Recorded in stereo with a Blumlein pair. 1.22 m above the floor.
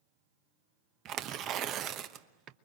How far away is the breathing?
I don't hear breathing.